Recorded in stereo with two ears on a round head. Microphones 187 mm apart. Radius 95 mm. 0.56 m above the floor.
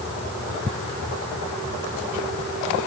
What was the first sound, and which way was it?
Only background noise.